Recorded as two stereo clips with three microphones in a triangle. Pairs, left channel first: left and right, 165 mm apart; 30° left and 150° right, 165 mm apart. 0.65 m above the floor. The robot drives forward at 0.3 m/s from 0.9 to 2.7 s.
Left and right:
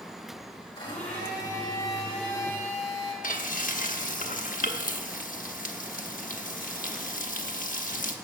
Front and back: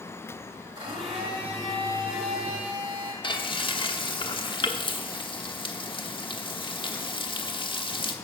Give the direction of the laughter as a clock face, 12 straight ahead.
No laughter in this recording.